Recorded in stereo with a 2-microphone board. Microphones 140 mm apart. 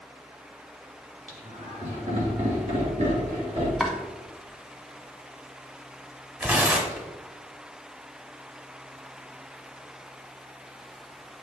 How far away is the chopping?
About 1.1 m.